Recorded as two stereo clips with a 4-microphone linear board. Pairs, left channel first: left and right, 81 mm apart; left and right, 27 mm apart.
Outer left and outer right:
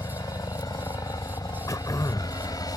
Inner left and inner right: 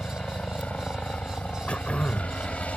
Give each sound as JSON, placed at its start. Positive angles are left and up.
{"t": 0.0, "sound": "a helicopter", "side_deg": 50}
{"t": 1.7, "sound": "throat clearing", "side_deg": 45}